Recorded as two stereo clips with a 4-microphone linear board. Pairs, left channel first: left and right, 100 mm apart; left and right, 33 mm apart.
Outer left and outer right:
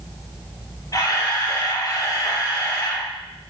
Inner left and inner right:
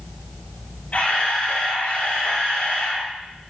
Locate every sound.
0.9 s a camera shutter: 40° left (ahead or behind), 5.5 m